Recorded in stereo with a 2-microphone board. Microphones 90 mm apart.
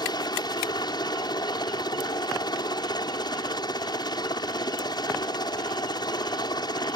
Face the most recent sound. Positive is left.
turn(degrees=50)  # may be behind; listen again after turning